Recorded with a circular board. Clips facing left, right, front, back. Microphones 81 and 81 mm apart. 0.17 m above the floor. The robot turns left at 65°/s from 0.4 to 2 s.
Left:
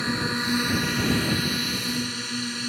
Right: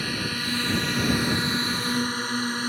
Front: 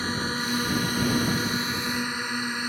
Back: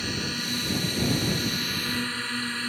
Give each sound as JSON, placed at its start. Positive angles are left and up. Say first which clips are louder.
{"t": 0.0, "sound": "a drone", "louder": "left 3 dB, front 4 dB", "azimuth_deg": 35}